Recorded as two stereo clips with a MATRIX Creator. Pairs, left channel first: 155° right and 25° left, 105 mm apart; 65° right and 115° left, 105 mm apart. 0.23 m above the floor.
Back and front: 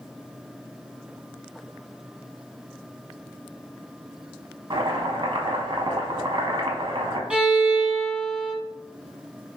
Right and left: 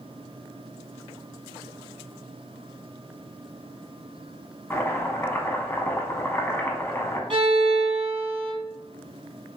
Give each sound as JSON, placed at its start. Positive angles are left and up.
{"t": 4.7, "sound": "chopping", "azimuth_deg": -5, "distance_m": 0.6}
{"t": 7.3, "sound": "a violin", "azimuth_deg": 100, "distance_m": 0.8}